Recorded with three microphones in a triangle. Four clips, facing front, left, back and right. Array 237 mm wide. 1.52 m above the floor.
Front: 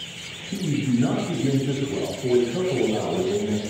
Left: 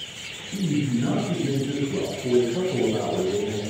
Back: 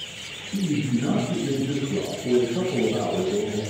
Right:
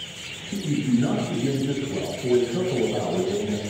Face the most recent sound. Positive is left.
turn(degrees=-35)